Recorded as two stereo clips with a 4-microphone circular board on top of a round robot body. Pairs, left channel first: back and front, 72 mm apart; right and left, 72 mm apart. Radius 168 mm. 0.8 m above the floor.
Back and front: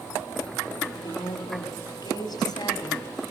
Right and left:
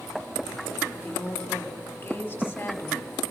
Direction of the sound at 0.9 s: 155° right.